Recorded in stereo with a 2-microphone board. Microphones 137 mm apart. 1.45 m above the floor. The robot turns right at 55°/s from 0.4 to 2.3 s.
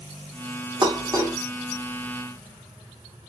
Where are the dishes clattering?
35° right (ahead or behind), 0.8 m; by 1.4 s 15° right (ahead or behind), 0.8 m.